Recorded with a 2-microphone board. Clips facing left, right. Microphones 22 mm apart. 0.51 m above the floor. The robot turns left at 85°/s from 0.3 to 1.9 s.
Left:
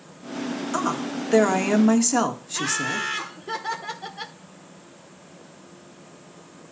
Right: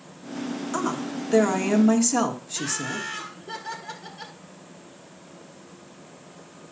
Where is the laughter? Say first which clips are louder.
Left 4 dB; 45° left (ahead or behind), 1.3 m.